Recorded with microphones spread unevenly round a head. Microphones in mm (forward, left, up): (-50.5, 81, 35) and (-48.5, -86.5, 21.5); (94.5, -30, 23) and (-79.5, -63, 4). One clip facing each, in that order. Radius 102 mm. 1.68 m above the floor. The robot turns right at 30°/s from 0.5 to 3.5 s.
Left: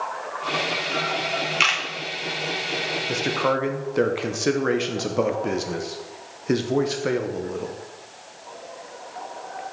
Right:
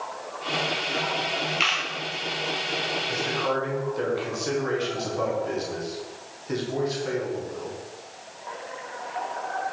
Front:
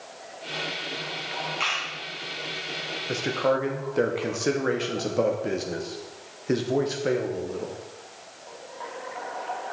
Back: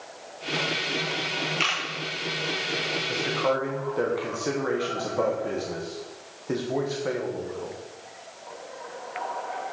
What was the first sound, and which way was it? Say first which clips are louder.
A camera shutter: left 2 dB, back 2 dB; 125° left.